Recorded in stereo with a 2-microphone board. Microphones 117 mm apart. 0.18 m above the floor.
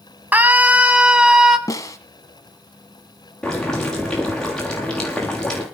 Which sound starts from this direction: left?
A snare drum, at 1.7 s.